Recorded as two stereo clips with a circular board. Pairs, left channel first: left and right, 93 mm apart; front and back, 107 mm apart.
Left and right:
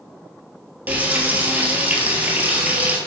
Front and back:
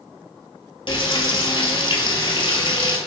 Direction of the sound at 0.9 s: 20° right.